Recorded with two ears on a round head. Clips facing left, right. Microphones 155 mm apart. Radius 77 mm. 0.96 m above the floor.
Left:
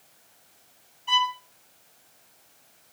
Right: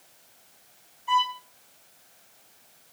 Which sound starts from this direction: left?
A violin, at 1.1 s.